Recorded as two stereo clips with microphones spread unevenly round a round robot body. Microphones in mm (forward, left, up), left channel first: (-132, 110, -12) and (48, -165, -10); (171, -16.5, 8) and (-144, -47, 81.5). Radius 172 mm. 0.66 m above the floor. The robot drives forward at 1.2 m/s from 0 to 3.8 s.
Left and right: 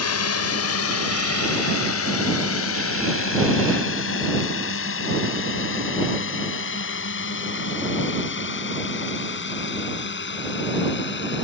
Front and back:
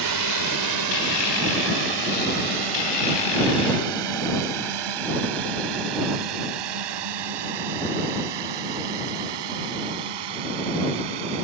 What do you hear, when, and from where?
0.0 s a drone: 160° left; by 11.4 s straight behind